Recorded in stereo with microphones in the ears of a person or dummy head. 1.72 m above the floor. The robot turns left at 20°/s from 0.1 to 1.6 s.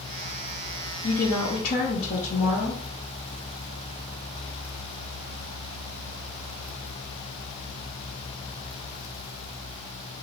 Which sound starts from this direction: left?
A woman speaking, at 1.0 s.